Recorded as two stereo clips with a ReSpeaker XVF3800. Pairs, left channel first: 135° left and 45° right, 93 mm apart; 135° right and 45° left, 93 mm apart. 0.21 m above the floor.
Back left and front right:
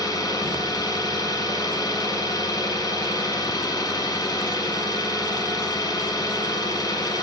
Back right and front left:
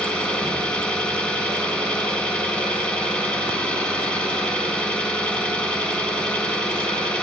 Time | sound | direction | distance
0.0 | an engine running | 150° left | 1.5 m